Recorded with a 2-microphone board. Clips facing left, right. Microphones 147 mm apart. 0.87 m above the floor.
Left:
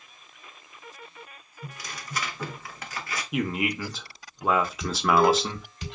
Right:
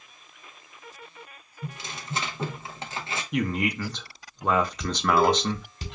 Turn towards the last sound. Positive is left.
turn(degrees=-35)  # may be behind; listen again after turning